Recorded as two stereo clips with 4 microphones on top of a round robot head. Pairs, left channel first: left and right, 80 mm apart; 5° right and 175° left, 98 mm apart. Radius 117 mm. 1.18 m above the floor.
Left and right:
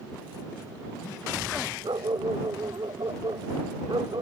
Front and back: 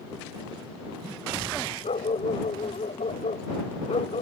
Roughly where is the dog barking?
Ahead right.